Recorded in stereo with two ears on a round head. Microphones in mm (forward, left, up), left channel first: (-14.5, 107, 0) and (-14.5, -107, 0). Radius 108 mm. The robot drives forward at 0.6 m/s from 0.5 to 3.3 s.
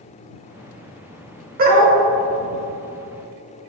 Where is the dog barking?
40° right (ahead or behind), 0.9 m; by 2.0 s 35° right (ahead or behind), 1.0 m.